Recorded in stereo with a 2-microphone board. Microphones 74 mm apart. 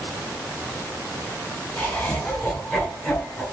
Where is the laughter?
10° left (ahead or behind), 8 m; by 3.4 s 5° left (ahead or behind), 7.5 m.